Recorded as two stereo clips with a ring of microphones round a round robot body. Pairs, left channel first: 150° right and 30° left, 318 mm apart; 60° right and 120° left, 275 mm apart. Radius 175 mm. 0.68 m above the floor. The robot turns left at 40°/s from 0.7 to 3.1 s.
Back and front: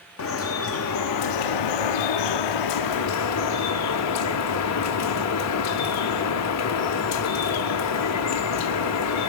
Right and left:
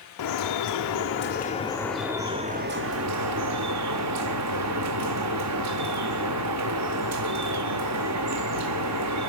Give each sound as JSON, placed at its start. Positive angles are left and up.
{"t": 0.2, "sound": "dripping", "azimuth_deg": -100, "distance_m": 0.7}